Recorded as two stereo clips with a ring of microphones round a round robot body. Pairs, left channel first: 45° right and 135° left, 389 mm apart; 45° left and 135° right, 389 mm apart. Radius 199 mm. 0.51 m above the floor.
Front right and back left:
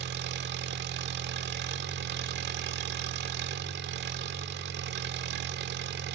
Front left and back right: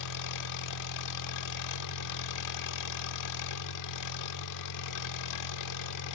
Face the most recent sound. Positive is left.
turn(degrees=75)